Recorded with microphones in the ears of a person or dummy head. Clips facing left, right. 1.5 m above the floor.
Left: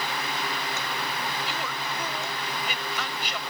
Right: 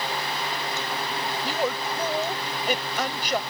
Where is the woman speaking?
40° right (ahead or behind).